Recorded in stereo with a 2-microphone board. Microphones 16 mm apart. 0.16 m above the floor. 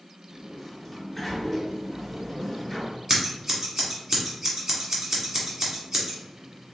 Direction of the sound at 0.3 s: Centre (ahead or behind).